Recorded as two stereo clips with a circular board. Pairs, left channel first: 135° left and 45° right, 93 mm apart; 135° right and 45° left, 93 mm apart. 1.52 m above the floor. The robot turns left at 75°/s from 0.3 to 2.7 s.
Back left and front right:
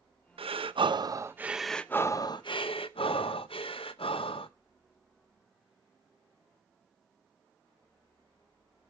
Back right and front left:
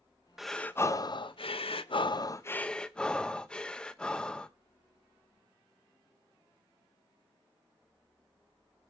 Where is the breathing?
40° right, 0.7 m; by 4.5 s 145° left, 0.7 m.